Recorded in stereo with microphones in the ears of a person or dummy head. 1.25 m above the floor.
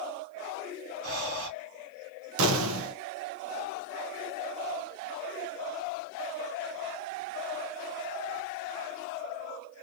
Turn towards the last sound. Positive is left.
turn(degrees=-85)